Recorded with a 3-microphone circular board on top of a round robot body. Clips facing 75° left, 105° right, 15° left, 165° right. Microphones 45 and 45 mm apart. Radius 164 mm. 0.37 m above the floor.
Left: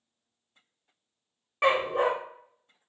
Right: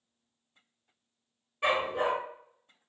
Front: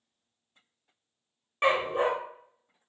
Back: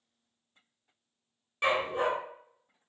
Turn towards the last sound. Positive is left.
turn(degrees=75)